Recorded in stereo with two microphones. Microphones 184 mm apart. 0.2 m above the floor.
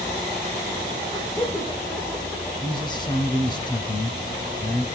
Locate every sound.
1.1 s laughter: 25° left (ahead or behind), 8.5 m
2.6 s a man speaking: 25° left (ahead or behind), 1.2 m